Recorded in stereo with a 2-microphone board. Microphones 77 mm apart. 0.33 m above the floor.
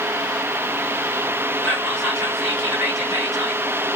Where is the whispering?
5° right (ahead or behind), 1.5 m.